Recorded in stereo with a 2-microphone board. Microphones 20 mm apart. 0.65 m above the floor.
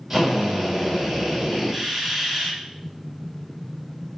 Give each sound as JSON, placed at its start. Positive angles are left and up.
{"t": 0.1, "sound": "a drill", "side_deg": -15, "distance_m": 3.0}